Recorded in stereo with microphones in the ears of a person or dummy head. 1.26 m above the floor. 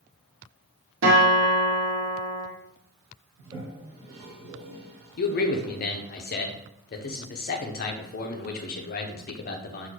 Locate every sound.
1.0 s a guitar: 70° right (ahead or behind), 1.1 m
3.4 s a toilet flushing: 25° right (ahead or behind), 1.1 m
5.2 s a man speaking: 45° left (ahead or behind), 0.5 m